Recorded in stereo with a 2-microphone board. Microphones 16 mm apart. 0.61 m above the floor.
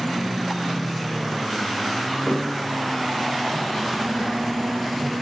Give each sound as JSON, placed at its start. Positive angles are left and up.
{"t": 2.3, "sound": "a thud", "side_deg": 45, "distance_m": 4.0}